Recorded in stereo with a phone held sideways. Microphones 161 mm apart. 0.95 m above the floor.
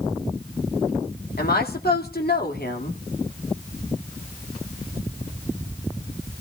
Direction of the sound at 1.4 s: 75° left (ahead or behind).